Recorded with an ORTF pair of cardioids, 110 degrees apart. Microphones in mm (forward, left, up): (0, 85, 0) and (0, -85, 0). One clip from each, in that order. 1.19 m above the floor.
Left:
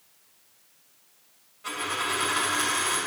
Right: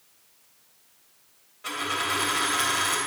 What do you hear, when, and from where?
1.6 s a dropped coin: 25° right, 3.5 m